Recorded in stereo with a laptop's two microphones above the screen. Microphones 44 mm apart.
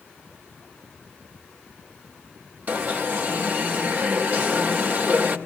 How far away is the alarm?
About 2.5 m.